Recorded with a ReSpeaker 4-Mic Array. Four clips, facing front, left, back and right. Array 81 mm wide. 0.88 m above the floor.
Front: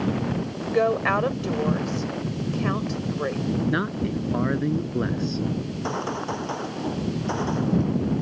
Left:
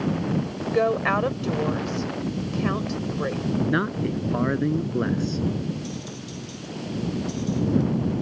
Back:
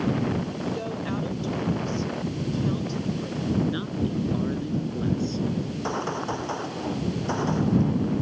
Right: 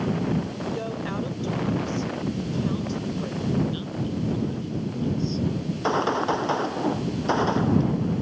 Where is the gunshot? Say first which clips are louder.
Right 9 dB, even; 90° right.